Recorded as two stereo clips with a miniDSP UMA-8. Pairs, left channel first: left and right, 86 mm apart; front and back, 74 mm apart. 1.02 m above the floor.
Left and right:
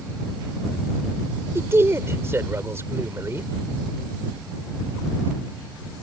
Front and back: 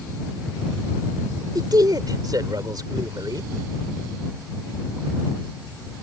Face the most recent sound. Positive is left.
turn(degrees=-150)